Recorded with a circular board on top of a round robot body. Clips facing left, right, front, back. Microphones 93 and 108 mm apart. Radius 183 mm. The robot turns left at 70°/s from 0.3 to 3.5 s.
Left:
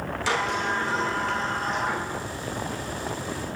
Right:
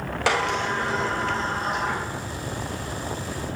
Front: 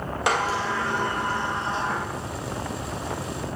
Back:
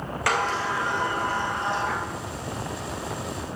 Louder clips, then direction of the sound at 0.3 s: Right 3 dB, front 1 dB; 70° right.